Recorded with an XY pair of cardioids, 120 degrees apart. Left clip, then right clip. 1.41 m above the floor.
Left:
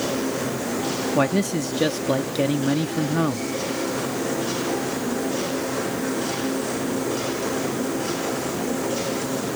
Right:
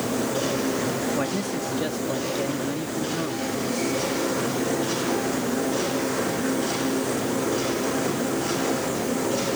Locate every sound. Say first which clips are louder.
1.1 s a man speaking: left 5 dB; 45° left